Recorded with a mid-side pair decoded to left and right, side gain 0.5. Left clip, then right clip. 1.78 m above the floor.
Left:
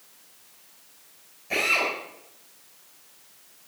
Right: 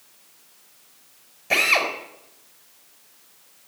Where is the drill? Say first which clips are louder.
Right 4 dB; 60° right, 4.5 m.